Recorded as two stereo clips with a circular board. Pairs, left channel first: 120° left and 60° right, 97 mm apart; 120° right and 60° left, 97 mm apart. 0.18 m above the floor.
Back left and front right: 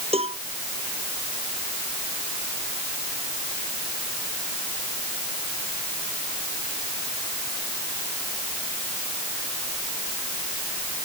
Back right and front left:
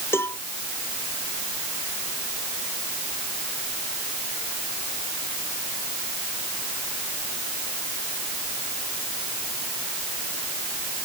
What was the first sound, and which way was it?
A cowbell, 55° right.